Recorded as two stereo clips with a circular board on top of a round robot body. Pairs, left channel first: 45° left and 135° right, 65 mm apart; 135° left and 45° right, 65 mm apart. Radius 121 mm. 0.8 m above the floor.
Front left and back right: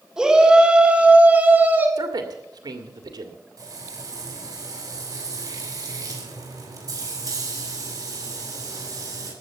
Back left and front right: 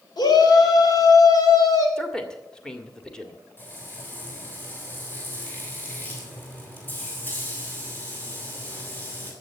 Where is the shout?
145° left, 4.5 m; by 1.9 s 165° left, 5 m.